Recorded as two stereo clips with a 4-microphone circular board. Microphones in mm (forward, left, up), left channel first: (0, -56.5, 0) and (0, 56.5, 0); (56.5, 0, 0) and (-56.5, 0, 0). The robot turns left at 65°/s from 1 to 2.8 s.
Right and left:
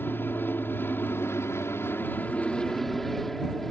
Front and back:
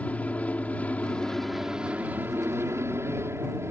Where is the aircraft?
55° right; by 3.7 s 175° right.